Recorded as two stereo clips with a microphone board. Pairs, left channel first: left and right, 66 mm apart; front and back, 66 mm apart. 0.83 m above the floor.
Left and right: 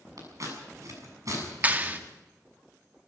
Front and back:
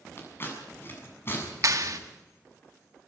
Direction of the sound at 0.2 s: 55° right.